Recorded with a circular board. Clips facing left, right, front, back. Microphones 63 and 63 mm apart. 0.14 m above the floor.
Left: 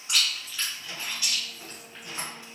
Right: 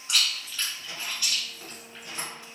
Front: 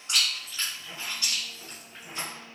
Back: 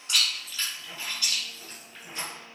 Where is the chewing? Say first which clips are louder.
Even, even; 30° left, 1.4 m.